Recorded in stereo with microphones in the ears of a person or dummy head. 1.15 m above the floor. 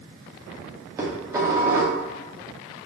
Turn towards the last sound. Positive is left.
turn(degrees=-20)  # may be behind; listen again after turning